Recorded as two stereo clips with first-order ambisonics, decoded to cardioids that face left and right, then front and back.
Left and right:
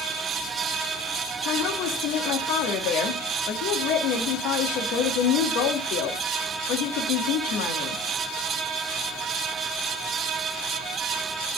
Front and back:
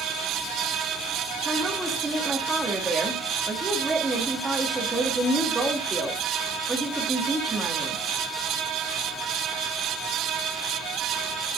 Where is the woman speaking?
100° left, 2.0 m.